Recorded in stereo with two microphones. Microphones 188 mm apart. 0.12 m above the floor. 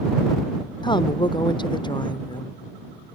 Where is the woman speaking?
25° left (ahead or behind).